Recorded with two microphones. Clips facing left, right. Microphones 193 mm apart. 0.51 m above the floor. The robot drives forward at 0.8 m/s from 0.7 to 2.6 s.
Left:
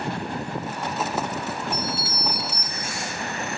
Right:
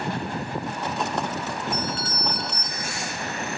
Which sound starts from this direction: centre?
A doorbell, at 1.7 s.